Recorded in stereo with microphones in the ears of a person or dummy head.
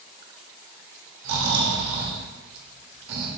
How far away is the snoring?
About 2.5 m.